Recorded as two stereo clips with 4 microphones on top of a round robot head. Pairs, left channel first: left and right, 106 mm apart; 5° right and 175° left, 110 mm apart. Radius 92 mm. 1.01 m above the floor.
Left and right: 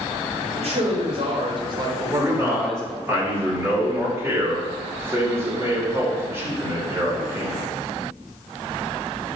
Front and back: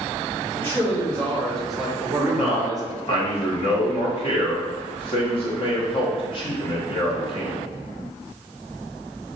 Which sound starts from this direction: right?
A man speaking, at 0.6 s.